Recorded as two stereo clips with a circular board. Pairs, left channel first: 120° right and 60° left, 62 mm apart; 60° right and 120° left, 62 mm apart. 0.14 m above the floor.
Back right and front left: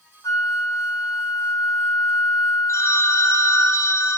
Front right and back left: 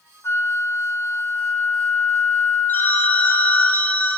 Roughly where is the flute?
Right.